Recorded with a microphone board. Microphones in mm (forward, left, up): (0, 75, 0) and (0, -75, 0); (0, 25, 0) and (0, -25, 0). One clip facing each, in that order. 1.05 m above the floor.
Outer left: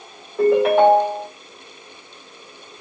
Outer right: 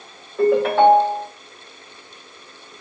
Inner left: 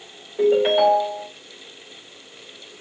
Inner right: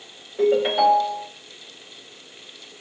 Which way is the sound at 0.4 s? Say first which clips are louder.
Outer left 1 dB, inner left 2 dB; 5° left (ahead or behind).